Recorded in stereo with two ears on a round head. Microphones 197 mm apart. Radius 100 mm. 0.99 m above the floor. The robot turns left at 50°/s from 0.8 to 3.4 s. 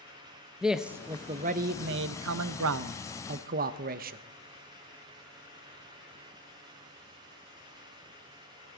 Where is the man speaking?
5° right, 0.5 m; by 4.2 s 135° right, 0.5 m.